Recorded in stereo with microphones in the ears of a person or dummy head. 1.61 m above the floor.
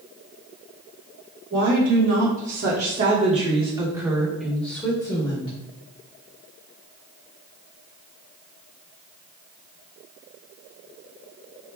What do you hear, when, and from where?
1.5 s a woman speaking: 70° right (ahead or behind), 1.9 m; by 5.5 s 25° left (ahead or behind), 1.6 m